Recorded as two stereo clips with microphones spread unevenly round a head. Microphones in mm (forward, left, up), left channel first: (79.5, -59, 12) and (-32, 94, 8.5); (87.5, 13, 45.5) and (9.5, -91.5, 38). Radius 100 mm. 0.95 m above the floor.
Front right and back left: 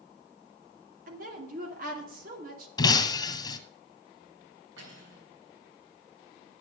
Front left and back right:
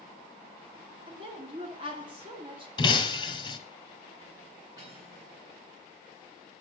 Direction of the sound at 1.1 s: 175° left.